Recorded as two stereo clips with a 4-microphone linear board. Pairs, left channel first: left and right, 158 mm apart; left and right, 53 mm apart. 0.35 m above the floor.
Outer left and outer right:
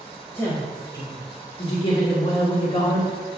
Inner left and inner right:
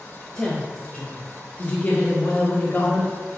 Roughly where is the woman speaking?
Centre.